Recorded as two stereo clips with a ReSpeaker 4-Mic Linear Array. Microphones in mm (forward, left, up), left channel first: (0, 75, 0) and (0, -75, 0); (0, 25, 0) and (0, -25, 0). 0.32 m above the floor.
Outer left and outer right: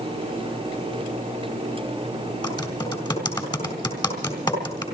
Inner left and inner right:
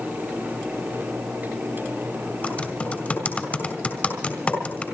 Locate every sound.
2.4 s typing on a keyboard: 30° left (ahead or behind), 3.5 m